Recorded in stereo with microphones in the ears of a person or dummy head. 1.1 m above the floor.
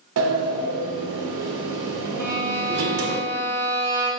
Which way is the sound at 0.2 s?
65° right (ahead or behind).